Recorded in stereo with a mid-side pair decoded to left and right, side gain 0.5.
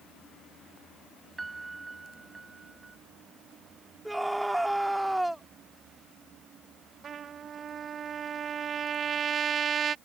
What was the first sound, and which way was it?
A piano, 20° right.